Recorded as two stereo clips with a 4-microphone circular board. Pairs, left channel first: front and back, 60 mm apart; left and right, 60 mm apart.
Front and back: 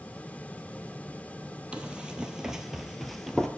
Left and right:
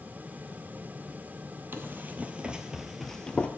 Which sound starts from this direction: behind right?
Running footsteps, at 1.7 s.